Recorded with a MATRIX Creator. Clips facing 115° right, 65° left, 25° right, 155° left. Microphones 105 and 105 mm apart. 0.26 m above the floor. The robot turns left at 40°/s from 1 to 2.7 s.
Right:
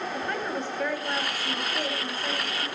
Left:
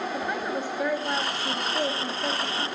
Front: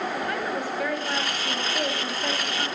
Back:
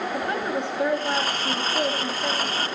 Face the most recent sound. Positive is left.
turn(degrees=65)